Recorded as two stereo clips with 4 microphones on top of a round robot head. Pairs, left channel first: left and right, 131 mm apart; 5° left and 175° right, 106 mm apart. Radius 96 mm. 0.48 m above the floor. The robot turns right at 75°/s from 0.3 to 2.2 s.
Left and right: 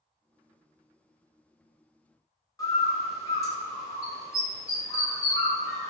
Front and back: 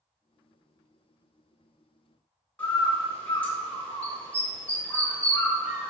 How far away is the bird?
About 1.3 m.